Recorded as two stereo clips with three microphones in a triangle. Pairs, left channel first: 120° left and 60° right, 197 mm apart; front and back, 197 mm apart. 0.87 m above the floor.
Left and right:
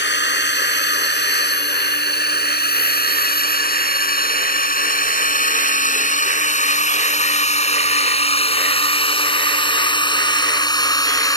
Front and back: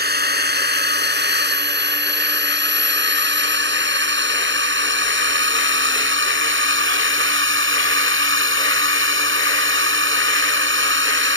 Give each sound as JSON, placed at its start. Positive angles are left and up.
{"t": 0.0, "sound": "a drone", "azimuth_deg": 145}